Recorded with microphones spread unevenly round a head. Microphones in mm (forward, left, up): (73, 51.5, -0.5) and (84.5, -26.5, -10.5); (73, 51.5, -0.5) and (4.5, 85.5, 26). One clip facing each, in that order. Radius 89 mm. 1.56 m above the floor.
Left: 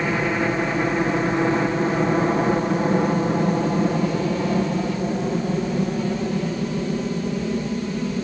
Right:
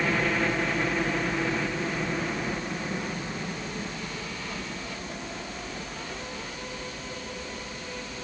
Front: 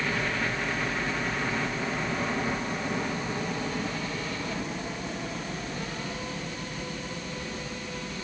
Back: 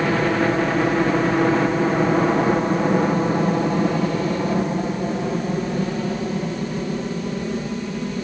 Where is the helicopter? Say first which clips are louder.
Left 4 dB, back 11 dB; straight behind; by 8.2 s 115° left.